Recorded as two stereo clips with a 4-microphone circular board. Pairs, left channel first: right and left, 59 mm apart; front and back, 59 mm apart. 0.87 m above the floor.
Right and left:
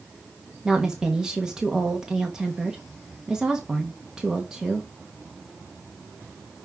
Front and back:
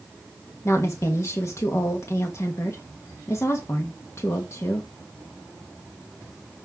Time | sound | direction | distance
0.7 | a woman speaking | 15° left | 1.1 m